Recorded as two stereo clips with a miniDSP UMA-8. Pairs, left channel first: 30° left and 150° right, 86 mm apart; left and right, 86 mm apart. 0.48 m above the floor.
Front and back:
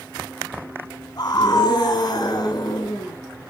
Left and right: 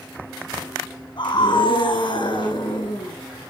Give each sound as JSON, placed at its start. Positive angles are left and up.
{"t": 1.2, "sound": "a scream", "azimuth_deg": 65, "distance_m": 4.5}